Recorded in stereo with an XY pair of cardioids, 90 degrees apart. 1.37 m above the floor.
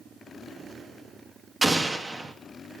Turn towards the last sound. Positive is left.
turn(degrees=-25)